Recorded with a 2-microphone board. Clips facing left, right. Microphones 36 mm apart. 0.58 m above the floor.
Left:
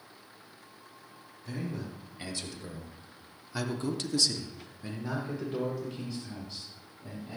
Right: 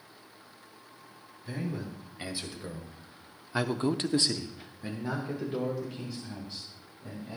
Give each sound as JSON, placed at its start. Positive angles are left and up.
{"t": 1.4, "sound": "a man speaking", "side_deg": -15, "distance_m": 3.5}